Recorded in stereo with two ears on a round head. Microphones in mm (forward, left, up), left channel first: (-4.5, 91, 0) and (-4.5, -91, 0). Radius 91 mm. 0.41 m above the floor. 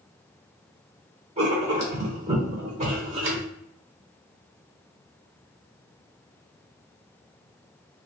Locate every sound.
1.4 s writing: 35° right (ahead or behind), 1.1 m